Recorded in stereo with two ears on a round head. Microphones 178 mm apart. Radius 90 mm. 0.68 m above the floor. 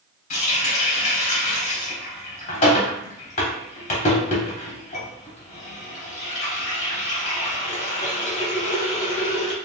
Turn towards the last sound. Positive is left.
turn(degrees=35)  # may be behind; listen again after turning